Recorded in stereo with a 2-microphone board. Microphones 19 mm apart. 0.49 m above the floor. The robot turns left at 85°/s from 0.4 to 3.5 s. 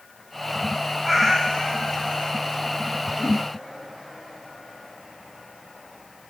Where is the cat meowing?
175° right, 1.0 m; by 2.3 s 75° left, 1.0 m.